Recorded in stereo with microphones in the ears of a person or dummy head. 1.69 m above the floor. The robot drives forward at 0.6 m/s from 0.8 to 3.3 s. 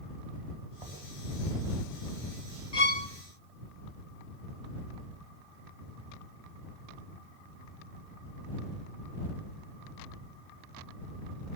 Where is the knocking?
20° right (ahead or behind), 9.5 m.